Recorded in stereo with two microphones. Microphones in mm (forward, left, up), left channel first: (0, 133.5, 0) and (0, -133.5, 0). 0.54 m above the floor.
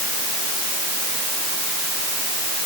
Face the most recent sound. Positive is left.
No sound to turn to.